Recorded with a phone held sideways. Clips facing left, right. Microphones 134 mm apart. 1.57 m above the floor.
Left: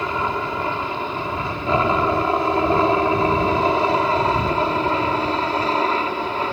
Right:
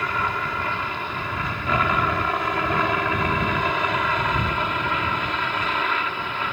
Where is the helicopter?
25° left (ahead or behind); by 6.5 s 40° left (ahead or behind).